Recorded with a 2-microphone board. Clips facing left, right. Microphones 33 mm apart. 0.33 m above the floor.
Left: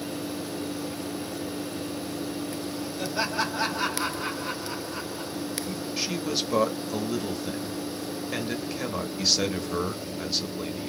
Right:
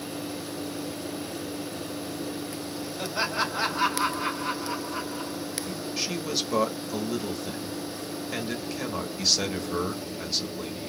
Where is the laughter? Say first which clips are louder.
Even; 10° right (ahead or behind), 1.7 m.